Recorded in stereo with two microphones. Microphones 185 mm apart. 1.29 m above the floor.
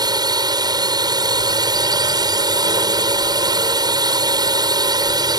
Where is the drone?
20° right (ahead or behind).